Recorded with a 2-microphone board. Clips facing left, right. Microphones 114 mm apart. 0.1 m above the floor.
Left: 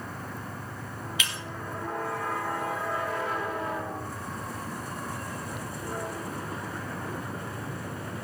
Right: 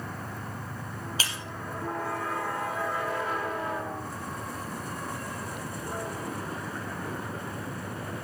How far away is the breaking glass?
About 1.7 m.